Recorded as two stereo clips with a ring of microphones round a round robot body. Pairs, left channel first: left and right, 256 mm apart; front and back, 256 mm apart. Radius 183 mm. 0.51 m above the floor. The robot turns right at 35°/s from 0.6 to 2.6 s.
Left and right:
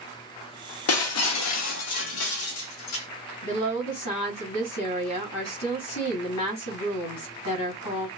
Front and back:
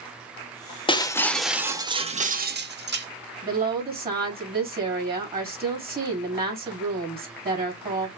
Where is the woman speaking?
125° left, 2.5 m.